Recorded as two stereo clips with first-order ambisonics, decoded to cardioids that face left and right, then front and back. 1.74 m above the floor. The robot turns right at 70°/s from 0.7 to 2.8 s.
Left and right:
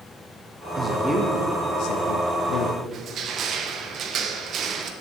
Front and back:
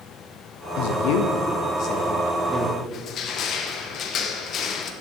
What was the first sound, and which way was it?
A man speaking, 20° right.